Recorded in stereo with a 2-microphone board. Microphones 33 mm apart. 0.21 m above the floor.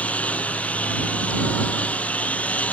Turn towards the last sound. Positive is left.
turn(degrees=45)  # may be behind; listen again after turning